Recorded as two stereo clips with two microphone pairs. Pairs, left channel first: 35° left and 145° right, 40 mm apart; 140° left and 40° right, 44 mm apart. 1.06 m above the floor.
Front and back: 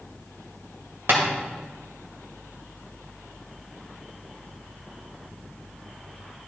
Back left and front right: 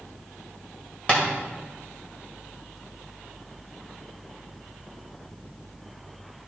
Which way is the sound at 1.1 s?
160° right.